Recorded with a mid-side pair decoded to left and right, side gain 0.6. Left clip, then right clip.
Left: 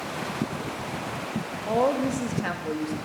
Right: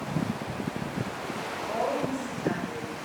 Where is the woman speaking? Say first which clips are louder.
Left 6 dB; 70° left, 2 m.